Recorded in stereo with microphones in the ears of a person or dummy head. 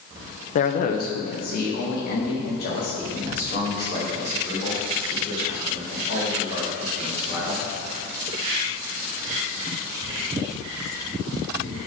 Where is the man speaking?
45° left (ahead or behind), 1.0 m; by 7.6 s 55° left (ahead or behind), 10 m.